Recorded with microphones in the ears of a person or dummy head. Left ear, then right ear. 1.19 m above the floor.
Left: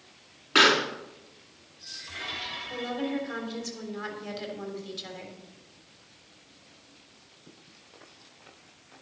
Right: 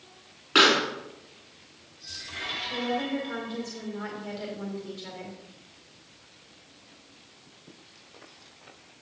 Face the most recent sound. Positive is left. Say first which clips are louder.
# right 1 dB
turn(degrees=30)  # may be behind; listen again after turning